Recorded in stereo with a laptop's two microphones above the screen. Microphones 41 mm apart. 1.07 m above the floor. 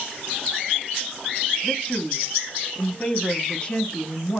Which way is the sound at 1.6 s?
25° left (ahead or behind).